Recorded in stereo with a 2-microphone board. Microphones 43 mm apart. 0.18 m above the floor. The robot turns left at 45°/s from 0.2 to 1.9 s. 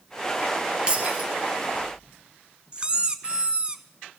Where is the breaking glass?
25° right (ahead or behind), 2.5 m; by 1.3 s 40° right (ahead or behind), 2.5 m.